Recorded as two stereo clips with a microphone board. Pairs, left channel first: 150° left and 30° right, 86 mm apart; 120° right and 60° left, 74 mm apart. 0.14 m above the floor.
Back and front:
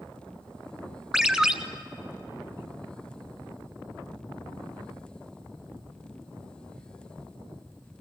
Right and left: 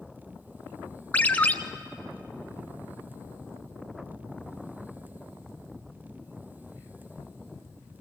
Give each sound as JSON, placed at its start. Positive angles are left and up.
{"t": 1.1, "sound": "a ringtone", "azimuth_deg": -100, "distance_m": 0.8}